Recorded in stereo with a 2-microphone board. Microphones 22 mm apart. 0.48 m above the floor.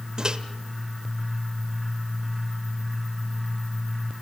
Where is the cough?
No cough in this recording.